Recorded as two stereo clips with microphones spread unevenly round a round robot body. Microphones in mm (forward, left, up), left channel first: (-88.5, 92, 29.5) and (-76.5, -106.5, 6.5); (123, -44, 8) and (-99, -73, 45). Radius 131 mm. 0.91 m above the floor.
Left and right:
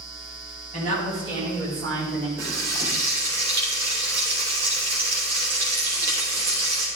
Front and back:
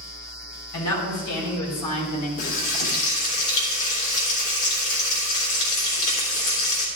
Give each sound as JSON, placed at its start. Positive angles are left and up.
{"t": 0.7, "sound": "a woman speaking", "azimuth_deg": 30, "distance_m": 4.0}
{"t": 2.4, "sound": "frying", "azimuth_deg": -5, "distance_m": 3.5}